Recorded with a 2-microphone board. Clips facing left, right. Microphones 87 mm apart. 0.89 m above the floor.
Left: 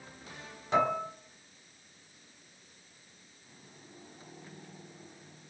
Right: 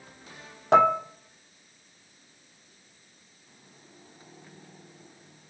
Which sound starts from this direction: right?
Dishes clattering, at 0.7 s.